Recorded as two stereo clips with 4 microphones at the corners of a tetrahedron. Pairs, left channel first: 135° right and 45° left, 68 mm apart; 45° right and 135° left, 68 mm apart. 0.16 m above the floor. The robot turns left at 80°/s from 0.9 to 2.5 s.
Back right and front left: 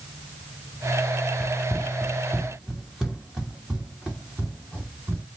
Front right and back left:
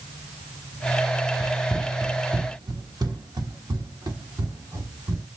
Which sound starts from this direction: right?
Running footsteps, at 1.4 s.